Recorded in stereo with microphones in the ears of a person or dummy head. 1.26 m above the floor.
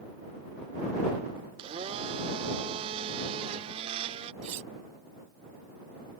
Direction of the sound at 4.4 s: 40° right (ahead or behind).